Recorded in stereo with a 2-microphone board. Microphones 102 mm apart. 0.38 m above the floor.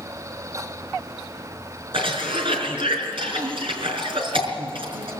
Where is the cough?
65° right (ahead or behind), 5 m.